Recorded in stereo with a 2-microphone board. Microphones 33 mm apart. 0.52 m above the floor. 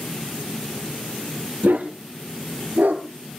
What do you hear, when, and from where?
1.6 s a dog barking: 90° right, 5.5 m; by 3.0 s 75° right (ahead or behind), 4 m